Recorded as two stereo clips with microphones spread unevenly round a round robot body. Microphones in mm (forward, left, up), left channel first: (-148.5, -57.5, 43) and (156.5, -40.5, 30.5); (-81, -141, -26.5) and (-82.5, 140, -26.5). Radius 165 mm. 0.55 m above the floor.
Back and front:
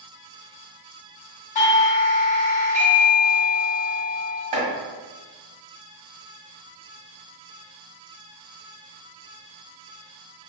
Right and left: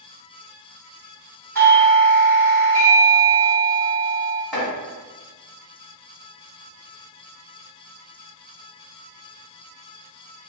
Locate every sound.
1.6 s a doorbell: 160° right, 1.8 m
4.5 s chopping: straight ahead, 1.7 m